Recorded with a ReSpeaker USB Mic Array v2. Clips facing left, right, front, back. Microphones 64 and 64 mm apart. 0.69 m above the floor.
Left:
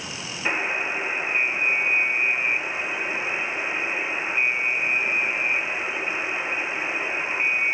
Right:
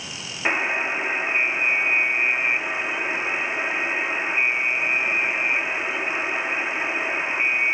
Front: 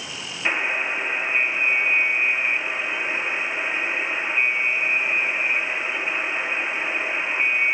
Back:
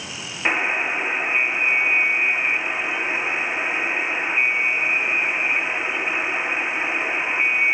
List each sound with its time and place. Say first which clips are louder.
0.5 s a buzzer: right 3 dB, back 2 dB; 125° right, 1.7 m